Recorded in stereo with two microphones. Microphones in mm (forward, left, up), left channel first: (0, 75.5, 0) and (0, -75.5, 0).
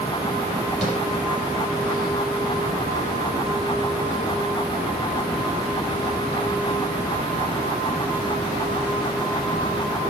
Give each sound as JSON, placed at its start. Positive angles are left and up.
{"t": 0.8, "sound": "tapping", "side_deg": 0, "distance_m": 6.0}